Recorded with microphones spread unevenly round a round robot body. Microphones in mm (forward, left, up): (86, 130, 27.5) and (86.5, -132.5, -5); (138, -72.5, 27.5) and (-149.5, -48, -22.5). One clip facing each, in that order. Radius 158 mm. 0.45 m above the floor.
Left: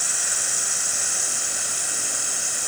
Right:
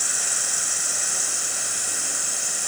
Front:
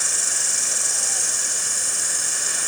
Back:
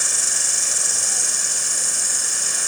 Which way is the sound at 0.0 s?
165° right.